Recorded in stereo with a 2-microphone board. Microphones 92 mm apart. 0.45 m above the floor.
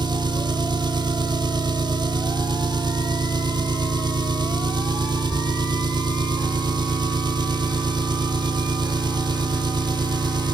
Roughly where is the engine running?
Right.